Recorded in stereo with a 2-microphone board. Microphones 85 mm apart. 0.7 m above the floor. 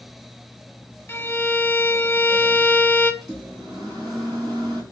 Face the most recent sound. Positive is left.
turn(degrees=-50)  # may be behind; listen again after turning